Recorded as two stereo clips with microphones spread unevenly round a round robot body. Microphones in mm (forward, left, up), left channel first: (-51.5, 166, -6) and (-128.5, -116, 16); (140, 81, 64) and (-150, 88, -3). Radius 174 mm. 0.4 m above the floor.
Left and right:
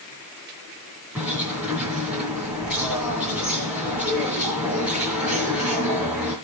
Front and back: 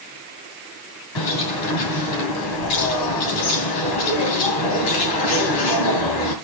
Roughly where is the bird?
Ahead.